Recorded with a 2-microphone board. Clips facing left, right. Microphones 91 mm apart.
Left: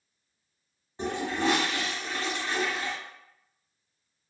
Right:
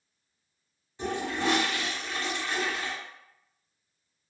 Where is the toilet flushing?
35° left (ahead or behind), 1.5 m.